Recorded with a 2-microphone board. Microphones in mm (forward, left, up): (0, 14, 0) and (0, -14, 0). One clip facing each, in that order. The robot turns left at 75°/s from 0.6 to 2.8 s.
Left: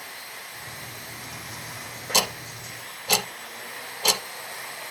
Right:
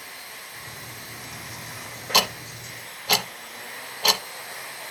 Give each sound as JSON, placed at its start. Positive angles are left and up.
{"t": 2.1, "sound": "ticking", "side_deg": -20, "distance_m": 0.8}